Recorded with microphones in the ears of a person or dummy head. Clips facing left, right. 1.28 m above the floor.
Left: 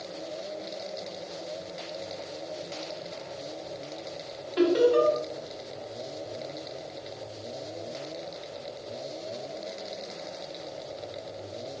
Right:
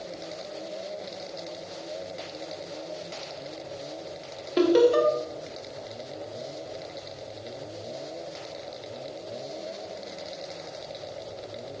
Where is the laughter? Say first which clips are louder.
Right 2 dB; 55° right (ahead or behind), 0.6 m.